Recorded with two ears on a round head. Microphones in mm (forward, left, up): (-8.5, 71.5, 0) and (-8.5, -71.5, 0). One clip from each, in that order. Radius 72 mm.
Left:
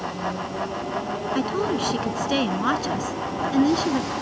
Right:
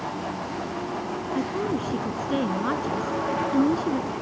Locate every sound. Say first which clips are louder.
1.4 s a woman speaking: left 3 dB; 80° left; by 4.1 s 70° left (ahead or behind)